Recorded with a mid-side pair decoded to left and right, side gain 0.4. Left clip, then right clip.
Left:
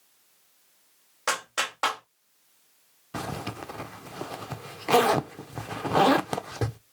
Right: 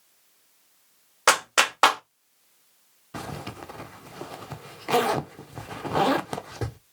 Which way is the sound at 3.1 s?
25° left.